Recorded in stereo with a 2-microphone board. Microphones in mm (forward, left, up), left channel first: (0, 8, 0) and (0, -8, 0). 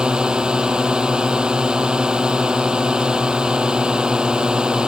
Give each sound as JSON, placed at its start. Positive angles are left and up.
{"t": 0.0, "sound": "a drone", "side_deg": -60}